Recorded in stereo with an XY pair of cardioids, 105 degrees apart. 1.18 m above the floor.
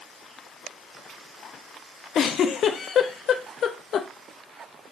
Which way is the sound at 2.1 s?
60° left.